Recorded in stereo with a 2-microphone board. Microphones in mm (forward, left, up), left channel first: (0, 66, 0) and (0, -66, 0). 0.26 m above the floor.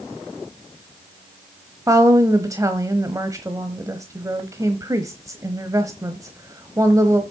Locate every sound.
1.9 s a woman speaking: 25° right (ahead or behind), 1.0 m